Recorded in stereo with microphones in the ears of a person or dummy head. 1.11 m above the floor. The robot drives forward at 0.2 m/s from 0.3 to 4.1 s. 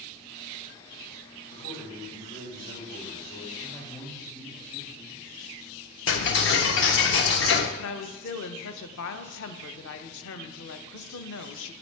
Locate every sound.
1.5 s a man speaking: 40° left (ahead or behind), 3.5 m
3.6 s a man speaking: 10° left (ahead or behind), 2.0 m; by 5.3 s 15° left (ahead or behind), 1.9 m
6.1 s ticking: 55° left (ahead or behind), 0.6 m
7.8 s a woman speaking: 65° left (ahead or behind), 0.7 m